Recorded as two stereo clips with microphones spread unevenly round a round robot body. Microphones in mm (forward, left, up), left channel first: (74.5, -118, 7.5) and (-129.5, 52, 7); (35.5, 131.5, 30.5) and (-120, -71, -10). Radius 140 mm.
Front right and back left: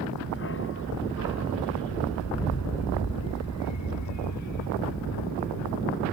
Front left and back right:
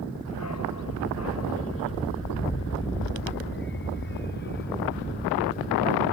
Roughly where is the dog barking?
Ahead.